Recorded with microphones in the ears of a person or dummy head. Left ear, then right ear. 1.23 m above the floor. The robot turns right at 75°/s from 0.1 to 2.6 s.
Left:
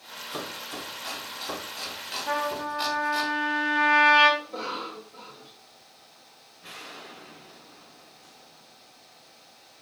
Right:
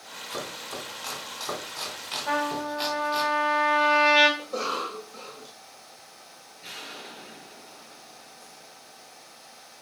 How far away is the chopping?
About 4.5 m.